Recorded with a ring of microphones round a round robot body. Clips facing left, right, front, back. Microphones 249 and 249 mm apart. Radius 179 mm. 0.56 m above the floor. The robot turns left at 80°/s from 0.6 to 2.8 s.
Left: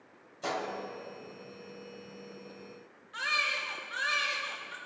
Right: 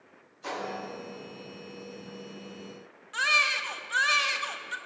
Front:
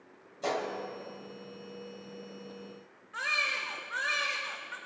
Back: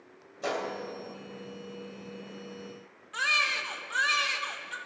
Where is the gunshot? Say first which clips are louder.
Even, even; 100° left, 3 m; by 0.7 s 95° left, 3 m.